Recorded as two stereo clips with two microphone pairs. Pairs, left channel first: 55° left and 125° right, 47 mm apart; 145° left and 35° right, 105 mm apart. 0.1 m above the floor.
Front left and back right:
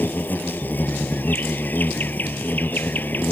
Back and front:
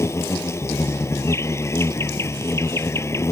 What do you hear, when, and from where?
0.0 s an insect: 90° left